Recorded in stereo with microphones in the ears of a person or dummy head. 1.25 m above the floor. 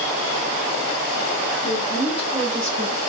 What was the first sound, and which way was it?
A woman speaking, 5° left (ahead or behind).